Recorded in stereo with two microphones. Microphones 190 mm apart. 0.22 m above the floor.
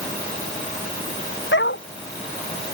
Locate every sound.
1.5 s a dog barking: 90° left